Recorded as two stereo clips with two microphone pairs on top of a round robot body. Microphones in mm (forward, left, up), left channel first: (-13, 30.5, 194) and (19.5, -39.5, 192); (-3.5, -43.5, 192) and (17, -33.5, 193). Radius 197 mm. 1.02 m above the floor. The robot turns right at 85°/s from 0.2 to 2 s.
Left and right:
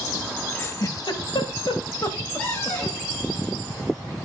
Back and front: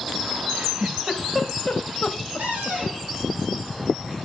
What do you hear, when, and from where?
0.5 s a giggle: 40° left, 1.7 m; by 2.8 s 165° left, 1.7 m
2.4 s a cupboard door: 45° left, 5.5 m